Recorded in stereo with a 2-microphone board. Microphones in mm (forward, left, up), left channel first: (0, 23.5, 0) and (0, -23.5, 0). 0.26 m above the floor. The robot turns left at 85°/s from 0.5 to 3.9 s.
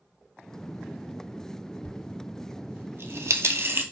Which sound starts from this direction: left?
A dropped coin, at 1.9 s.